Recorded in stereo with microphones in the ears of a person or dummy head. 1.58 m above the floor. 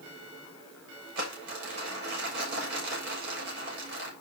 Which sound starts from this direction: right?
Crumpling, at 1.1 s.